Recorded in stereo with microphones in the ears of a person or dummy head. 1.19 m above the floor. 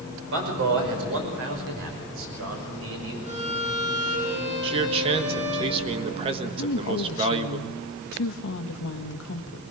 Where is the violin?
35° right (ahead or behind), 8 m.